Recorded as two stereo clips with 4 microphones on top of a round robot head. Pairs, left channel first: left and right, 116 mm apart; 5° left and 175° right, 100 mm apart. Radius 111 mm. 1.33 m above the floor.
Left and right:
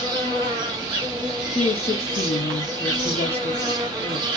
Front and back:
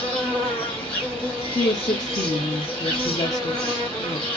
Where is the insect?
45° right, 1.4 m.